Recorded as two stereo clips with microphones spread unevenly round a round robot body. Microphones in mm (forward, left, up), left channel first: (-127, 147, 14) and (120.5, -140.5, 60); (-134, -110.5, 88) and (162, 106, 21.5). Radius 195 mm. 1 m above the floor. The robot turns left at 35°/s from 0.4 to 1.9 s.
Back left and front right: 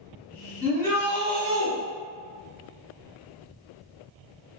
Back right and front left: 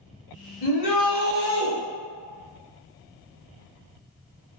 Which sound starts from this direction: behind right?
A shout, at 0.6 s.